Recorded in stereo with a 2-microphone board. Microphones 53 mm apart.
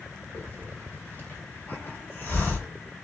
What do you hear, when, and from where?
0.3 s a hiss: 35° left (ahead or behind), 1.8 m